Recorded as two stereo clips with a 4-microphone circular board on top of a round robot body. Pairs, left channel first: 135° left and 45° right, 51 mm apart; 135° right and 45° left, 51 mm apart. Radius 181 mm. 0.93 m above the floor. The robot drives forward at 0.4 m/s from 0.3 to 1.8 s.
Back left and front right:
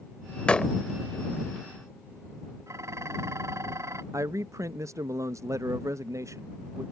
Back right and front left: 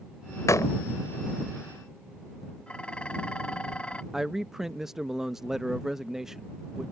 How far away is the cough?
I don't hear a cough.